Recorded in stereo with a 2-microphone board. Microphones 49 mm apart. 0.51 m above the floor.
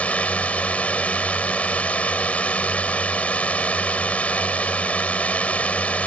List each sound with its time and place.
0.0 s a drone: 30° left (ahead or behind)